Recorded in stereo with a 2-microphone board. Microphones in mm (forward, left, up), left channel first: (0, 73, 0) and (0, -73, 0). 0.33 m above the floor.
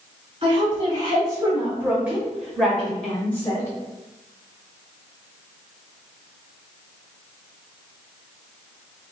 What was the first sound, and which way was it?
A woman speaking, 35° right (ahead or behind).